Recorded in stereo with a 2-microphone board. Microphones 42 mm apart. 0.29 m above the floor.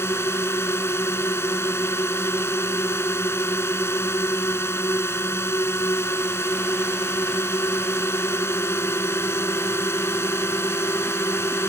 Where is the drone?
70° left (ahead or behind).